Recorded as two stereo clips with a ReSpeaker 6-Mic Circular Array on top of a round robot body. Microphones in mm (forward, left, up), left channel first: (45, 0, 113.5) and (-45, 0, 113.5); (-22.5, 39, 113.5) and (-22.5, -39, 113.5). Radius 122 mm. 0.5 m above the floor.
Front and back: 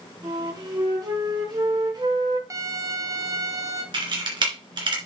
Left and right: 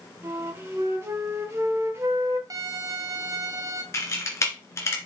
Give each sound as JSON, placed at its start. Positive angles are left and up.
{"t": 0.2, "sound": "a flute", "azimuth_deg": -145, "distance_m": 2.5}
{"t": 2.5, "sound": "a violin", "azimuth_deg": -130, "distance_m": 1.2}
{"t": 3.9, "sound": "a camera shutter", "azimuth_deg": 145, "distance_m": 2.5}